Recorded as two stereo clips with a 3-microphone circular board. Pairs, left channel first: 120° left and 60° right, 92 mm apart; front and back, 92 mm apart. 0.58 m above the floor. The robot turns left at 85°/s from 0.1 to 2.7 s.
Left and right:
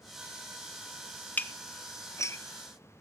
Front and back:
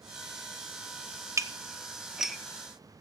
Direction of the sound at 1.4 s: 175° left.